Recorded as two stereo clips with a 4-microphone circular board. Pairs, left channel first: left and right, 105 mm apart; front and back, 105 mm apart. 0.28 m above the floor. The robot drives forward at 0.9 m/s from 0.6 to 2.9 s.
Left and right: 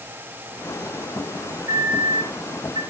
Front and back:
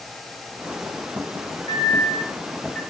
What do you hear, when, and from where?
1.7 s a microwave: 40° right, 1.7 m; by 2.8 s 85° right, 1.3 m